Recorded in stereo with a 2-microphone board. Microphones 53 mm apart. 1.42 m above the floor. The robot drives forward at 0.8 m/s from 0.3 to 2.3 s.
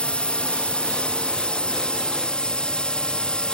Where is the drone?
20° left (ahead or behind).